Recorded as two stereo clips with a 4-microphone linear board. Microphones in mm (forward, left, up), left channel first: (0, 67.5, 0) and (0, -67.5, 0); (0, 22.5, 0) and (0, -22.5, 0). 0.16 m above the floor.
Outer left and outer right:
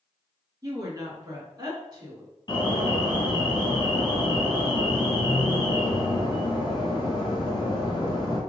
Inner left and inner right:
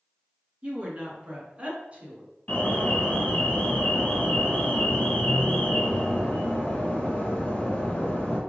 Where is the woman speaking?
30° right (ahead or behind), 2 m.